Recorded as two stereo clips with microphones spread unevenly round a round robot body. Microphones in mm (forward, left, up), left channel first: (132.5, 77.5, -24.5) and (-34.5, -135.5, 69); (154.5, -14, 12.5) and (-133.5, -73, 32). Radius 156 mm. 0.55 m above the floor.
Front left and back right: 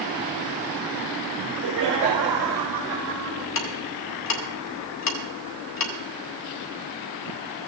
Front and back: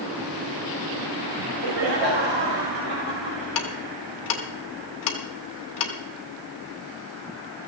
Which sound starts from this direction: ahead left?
Ticking, at 3.5 s.